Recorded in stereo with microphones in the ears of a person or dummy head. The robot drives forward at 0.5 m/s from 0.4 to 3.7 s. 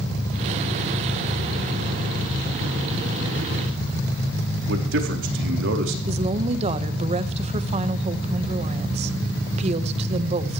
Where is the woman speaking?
40° right (ahead or behind), 1.4 m.